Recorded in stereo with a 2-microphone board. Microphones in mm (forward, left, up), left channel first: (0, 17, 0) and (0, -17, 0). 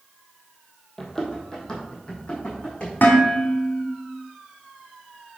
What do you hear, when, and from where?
1.0 s running footsteps: 10° left (ahead or behind), 1.8 m; by 2.9 s 30° left (ahead or behind), 4.5 m
3.0 s dishes clattering: 85° left, 1.8 m